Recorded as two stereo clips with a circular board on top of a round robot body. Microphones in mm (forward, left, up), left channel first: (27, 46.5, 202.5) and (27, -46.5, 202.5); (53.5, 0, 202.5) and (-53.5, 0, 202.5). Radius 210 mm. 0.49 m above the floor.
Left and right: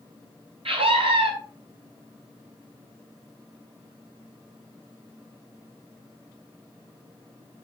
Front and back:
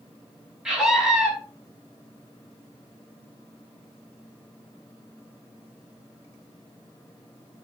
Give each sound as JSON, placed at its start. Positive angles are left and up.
{"t": 0.7, "sound": "a scream", "azimuth_deg": -95, "distance_m": 4.0}